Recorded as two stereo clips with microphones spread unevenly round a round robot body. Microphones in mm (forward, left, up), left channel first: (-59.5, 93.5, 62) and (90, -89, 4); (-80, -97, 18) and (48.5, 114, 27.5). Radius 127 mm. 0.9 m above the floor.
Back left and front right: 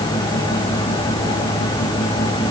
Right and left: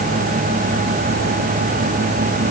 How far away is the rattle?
I don't hear a rattle.